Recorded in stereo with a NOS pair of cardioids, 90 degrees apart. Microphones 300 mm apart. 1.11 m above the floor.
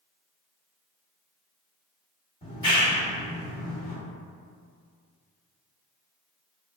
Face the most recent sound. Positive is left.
turn(degrees=15)